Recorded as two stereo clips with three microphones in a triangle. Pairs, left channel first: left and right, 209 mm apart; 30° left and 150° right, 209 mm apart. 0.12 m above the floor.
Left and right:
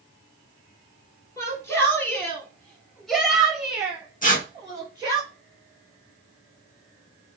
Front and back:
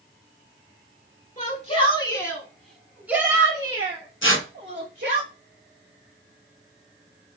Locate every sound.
1.4 s a shout: 25° left, 2 m; by 5.2 s 165° right, 2.5 m
4.2 s tearing paper: 45° left, 1.1 m